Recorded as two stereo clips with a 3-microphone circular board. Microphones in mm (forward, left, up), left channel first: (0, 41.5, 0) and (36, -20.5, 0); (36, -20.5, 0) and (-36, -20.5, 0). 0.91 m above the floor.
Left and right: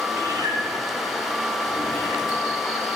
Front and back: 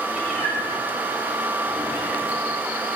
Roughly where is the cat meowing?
Right.